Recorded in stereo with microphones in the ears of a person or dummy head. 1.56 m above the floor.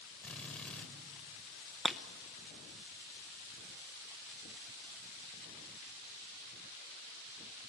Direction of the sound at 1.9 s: Centre (ahead or behind).